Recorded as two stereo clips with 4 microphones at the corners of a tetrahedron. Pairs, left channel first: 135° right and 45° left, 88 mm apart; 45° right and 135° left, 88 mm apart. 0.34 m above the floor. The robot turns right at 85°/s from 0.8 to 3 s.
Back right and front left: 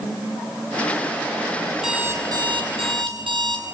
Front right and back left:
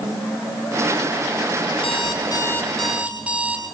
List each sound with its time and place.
1.7 s an alarm clock: 45° right, 6.5 m; by 3.6 s 60° left, 6.5 m